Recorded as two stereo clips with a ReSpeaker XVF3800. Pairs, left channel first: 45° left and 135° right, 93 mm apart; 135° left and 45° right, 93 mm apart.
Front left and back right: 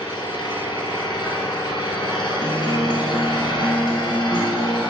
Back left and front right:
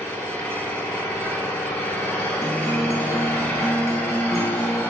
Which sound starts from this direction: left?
An engine running, at 0.0 s.